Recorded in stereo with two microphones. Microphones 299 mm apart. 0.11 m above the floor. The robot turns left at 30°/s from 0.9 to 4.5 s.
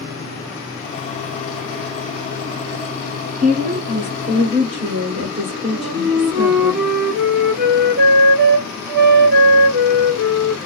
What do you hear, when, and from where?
3.4 s a woman speaking: 85° right, 1.4 m; by 6.7 s 115° right, 1.4 m
5.7 s a flute: 35° right (ahead or behind), 0.8 m